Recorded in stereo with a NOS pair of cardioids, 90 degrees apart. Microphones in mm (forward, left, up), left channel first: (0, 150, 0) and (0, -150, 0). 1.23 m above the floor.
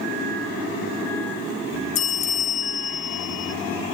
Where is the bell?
55° left, 0.7 m.